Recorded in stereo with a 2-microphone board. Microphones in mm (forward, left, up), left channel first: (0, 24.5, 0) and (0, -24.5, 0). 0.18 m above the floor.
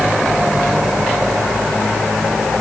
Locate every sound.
Only background noise.